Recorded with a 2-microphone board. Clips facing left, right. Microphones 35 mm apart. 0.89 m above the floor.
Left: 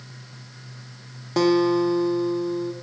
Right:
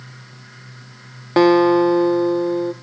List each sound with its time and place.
1.4 s a guitar: 35° right (ahead or behind), 0.7 m